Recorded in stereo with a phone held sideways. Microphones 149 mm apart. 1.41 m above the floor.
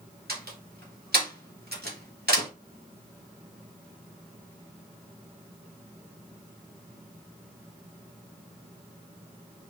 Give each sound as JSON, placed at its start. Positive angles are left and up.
{"t": 0.3, "sound": "a door slam", "side_deg": -80, "distance_m": 2.5}